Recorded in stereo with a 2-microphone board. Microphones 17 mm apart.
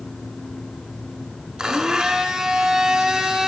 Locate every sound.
1.6 s a blender: 55° right (ahead or behind), 0.6 m